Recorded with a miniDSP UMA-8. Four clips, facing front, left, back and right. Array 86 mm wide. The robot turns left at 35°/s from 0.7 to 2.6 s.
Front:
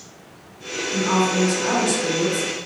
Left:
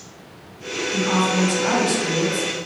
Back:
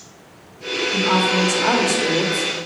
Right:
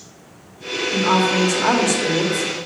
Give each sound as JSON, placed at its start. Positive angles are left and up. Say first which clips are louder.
{"t": 0.9, "sound": "a woman speaking", "louder": "right 3 dB, back 1 dB", "azimuth_deg": -95, "distance_m": 1.4}